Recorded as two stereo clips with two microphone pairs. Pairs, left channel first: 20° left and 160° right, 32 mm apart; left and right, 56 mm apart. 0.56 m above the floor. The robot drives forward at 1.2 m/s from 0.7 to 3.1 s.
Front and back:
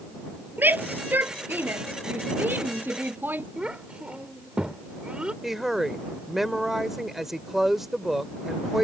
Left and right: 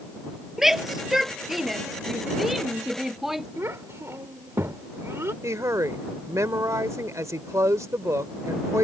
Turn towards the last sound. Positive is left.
turn(degrees=-80)